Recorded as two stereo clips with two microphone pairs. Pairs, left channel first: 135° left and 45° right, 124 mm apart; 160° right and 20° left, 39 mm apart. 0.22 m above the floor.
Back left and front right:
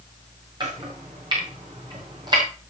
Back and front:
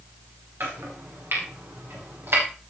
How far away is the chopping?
About 7 m.